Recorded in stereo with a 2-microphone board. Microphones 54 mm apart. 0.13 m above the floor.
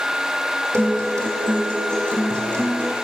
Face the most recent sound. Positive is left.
turn(degrees=-65)  # may be behind; listen again after turning